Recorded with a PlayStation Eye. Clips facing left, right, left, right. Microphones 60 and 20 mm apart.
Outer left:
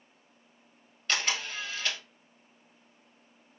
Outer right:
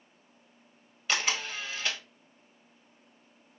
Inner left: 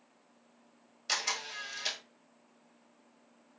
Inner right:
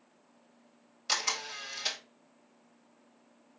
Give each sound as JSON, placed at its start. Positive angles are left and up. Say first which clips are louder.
{"t": 1.1, "sound": "a camera shutter", "louder": "outer right 1 dB, inner right 2 dB", "side_deg": -10, "distance_m": 1.4}